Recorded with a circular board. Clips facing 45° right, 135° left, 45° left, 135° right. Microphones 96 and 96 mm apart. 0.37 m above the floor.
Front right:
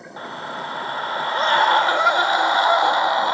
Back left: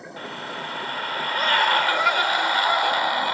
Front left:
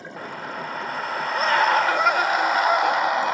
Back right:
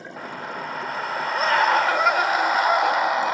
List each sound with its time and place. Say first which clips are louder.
0.2 s a scream: front right 4 dB, even; 45° right, 1.2 m